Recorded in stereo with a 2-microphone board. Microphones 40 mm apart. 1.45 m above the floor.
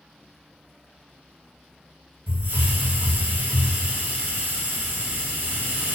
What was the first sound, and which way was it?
A hiss, 80° right.